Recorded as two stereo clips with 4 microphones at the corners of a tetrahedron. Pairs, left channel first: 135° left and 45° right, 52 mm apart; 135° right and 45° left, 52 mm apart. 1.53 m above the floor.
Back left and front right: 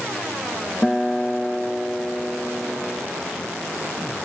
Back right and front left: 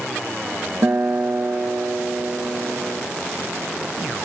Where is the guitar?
65° left, 1.1 m.